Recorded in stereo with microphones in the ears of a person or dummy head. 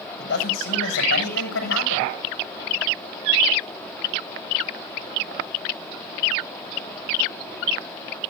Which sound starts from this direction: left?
A man speaking, at 0.2 s.